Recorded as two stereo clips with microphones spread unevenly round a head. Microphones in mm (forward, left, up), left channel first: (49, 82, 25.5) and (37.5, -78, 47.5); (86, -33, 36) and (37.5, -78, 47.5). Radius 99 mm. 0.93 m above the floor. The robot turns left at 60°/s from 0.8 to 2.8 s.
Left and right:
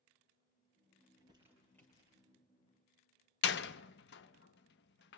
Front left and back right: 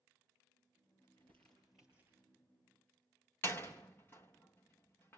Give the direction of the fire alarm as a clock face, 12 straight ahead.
No fire alarm in this recording.